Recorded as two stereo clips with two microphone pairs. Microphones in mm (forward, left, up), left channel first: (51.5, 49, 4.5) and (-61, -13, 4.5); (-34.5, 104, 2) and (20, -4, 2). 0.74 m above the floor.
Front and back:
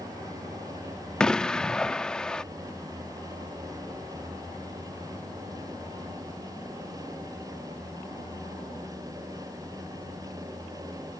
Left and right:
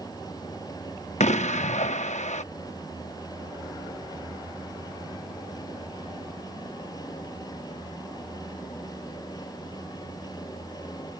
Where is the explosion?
115° left.